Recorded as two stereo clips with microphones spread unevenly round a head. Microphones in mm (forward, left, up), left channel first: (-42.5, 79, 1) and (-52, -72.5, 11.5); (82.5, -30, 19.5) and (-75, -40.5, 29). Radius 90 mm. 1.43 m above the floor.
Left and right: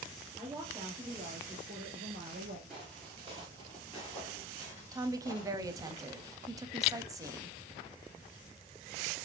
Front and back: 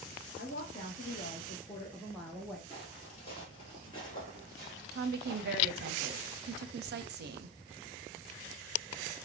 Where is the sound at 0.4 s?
10° right, 1.0 m; by 2.6 s 90° right, 1.0 m.